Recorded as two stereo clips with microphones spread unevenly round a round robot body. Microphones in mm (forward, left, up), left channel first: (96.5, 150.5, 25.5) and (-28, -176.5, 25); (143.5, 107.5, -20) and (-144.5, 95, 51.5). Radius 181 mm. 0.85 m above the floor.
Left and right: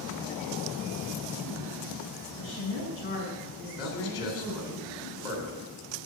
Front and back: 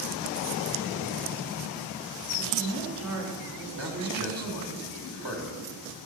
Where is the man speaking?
125° left, 3 m.